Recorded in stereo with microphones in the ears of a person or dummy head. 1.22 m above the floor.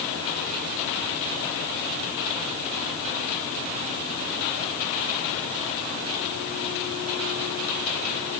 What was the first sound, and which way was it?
Only background noise.